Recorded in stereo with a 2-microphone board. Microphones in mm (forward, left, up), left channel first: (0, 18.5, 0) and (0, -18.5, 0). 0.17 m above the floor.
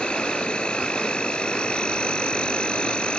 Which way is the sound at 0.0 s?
30° left (ahead or behind).